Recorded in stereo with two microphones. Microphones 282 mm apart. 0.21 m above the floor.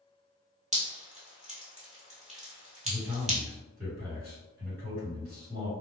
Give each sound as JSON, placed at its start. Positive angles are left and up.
{"t": 0.7, "sound": "dripping", "side_deg": -25, "distance_m": 1.3}
{"t": 2.9, "sound": "a man speaking", "side_deg": -35, "distance_m": 1.8}